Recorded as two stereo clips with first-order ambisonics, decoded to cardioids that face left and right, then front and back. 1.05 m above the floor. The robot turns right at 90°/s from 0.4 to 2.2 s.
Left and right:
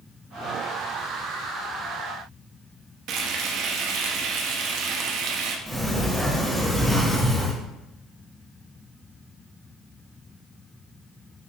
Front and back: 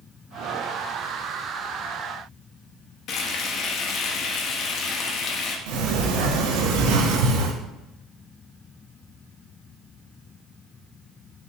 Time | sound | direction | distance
3.1 | frying | 50° right | 0.9 m
5.7 | a sliding door | 175° right | 1.2 m